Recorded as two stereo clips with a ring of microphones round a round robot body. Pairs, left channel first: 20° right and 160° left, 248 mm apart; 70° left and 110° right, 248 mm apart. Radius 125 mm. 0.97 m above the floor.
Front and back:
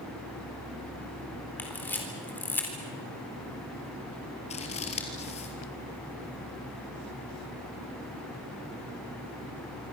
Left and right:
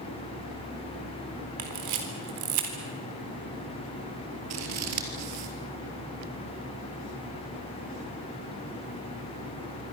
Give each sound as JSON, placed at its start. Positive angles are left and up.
{"t": 1.6, "sound": "a camera shutter", "azimuth_deg": -105, "distance_m": 4.0}
{"t": 4.5, "sound": "scissors", "azimuth_deg": -85, "distance_m": 3.0}